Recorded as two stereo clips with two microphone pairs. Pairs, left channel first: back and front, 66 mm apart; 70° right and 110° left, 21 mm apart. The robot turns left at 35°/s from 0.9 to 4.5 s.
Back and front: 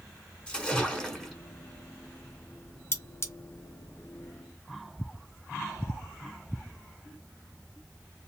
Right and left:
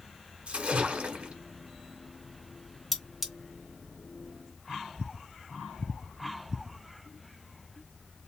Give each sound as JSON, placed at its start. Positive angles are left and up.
{"t": 0.5, "sound": "a splash", "azimuth_deg": 105, "distance_m": 0.8}
{"t": 2.9, "sound": "cutlery clinking", "azimuth_deg": -155, "distance_m": 0.6}